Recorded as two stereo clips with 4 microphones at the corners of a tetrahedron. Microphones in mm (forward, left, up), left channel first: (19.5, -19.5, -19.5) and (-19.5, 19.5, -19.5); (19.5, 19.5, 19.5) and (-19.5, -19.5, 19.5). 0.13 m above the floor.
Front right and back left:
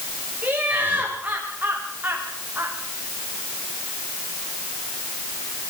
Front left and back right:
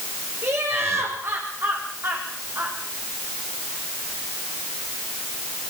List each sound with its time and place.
0.4 s laughter: 165° right, 8.5 m; by 2.8 s 175° right, 6.5 m